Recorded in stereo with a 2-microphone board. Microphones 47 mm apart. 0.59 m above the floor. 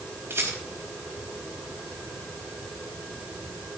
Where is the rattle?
60° right (ahead or behind), 4 m.